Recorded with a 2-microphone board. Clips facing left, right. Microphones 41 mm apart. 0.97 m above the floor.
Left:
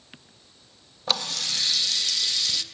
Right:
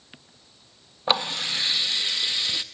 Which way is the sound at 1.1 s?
25° right (ahead or behind).